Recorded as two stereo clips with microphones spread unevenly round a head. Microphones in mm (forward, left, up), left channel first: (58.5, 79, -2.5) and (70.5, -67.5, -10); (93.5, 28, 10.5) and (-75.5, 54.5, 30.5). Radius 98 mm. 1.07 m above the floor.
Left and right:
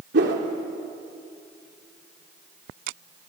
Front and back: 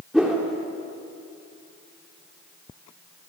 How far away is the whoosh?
About 3 m.